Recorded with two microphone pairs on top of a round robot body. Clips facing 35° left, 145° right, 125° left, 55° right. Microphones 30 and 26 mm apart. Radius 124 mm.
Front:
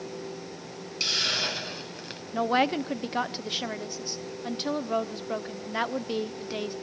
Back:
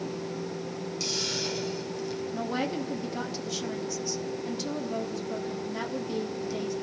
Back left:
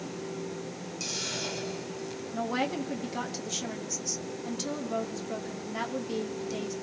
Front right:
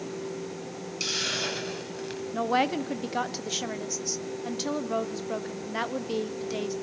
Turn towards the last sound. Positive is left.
turn(degrees=-5)